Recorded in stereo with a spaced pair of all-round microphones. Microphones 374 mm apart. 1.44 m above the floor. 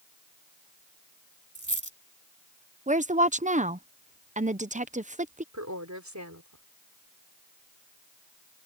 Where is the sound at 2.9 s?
20° right (ahead or behind).